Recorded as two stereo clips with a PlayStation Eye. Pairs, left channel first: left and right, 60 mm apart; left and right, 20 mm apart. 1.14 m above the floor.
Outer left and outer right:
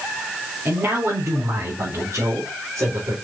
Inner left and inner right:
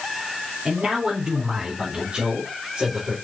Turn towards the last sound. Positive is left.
turn(degrees=-60)  # may be behind; listen again after turning